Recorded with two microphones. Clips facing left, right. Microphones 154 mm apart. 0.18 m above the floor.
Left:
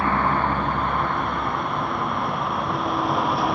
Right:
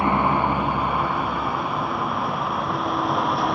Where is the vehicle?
15° right (ahead or behind); by 3.5 s centre (ahead or behind).